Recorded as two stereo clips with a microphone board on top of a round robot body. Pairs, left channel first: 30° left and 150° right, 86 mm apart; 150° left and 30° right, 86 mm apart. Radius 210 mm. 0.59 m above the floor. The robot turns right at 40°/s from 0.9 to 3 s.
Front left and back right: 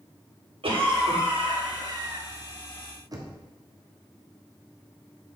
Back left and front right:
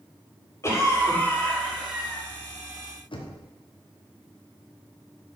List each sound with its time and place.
0.6 s a cough: 155° right, 2.5 m; by 2.2 s 100° right, 2.5 m
3.1 s knocking: 165° left, 1.4 m